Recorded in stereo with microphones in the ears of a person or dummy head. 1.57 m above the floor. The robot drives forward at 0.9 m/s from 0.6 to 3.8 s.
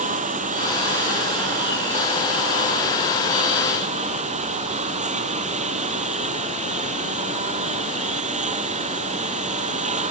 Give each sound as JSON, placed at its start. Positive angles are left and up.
{"t": 0.0, "sound": "a lawn mower", "side_deg": -40}